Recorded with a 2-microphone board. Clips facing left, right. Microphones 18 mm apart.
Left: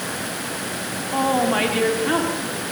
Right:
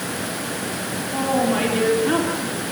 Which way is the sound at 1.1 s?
30° left (ahead or behind).